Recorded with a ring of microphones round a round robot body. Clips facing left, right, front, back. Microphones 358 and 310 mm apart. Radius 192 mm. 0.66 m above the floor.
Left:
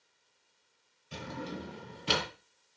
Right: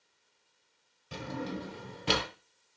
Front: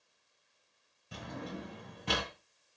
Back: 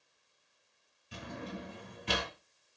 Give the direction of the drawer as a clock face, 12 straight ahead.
2 o'clock.